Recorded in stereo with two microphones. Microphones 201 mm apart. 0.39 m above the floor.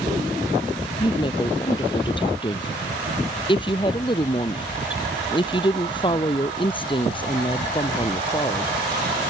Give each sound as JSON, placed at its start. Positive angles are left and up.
{"t": 1.0, "sound": "a woman speaking", "side_deg": 25}